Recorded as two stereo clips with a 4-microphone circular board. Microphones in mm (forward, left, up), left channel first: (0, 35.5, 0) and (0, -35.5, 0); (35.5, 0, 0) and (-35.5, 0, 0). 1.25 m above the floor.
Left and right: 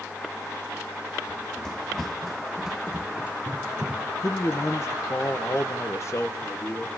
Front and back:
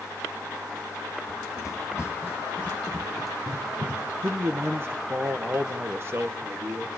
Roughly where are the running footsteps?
Ahead.